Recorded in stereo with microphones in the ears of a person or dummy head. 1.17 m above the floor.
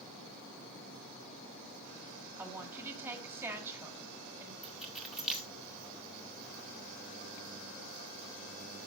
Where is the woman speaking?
15° right (ahead or behind), 2.5 m.